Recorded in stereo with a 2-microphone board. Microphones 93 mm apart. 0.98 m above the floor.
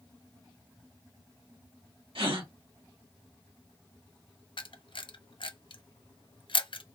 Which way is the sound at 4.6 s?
65° left (ahead or behind).